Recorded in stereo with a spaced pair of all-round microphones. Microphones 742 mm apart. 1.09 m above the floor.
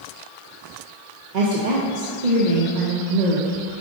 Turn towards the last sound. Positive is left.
turn(degrees=-75)  # may be behind; listen again after turning